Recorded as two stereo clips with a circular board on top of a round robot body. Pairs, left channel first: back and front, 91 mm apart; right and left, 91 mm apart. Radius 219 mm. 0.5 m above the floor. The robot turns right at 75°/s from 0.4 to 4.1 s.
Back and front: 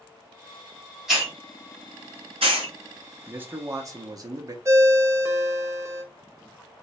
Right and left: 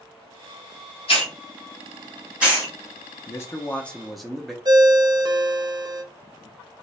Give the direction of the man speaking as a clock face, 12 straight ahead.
2 o'clock.